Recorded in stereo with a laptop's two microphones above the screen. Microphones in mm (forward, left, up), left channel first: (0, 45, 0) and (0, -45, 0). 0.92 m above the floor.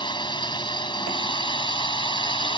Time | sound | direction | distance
0.0 | a drone | 55° left (ahead or behind) | ?